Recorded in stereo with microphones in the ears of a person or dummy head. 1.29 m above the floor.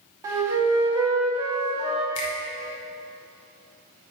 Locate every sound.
0.2 s a flute: 20° right (ahead or behind), 1.0 m
2.1 s a finger snap: 70° left (ahead or behind), 1.3 m